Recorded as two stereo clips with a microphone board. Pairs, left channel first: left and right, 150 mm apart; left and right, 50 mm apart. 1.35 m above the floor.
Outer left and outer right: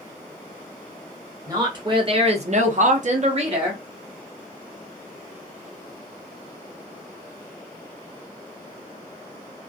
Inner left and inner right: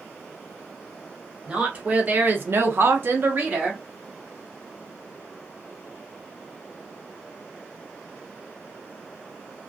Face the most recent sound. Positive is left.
turn(degrees=-30)  # may be behind; listen again after turning